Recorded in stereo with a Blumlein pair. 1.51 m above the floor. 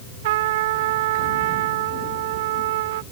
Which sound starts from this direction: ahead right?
A trumpet, at 0.2 s.